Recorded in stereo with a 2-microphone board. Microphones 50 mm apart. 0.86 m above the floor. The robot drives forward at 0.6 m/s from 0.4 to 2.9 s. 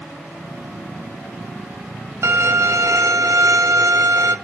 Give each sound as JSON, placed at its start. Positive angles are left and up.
{"t": 2.2, "sound": "a violin", "side_deg": -60, "distance_m": 1.1}